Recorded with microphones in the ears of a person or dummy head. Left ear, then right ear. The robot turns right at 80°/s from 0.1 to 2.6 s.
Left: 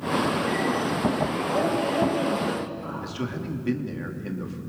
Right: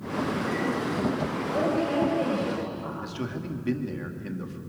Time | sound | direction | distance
1.5 | a woman speaking | 115° left | 5 m
3.0 | a man speaking | centre (ahead or behind) | 2.5 m